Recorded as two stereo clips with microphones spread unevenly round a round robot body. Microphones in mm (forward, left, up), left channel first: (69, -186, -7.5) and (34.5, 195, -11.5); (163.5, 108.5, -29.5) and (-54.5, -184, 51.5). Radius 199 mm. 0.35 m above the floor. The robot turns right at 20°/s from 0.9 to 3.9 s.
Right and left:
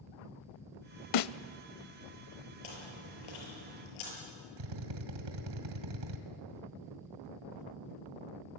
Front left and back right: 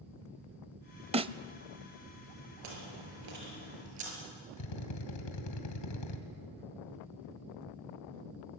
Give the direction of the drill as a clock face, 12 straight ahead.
10 o'clock.